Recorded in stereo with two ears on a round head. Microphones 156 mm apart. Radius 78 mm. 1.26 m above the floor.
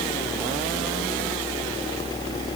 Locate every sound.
Only background noise.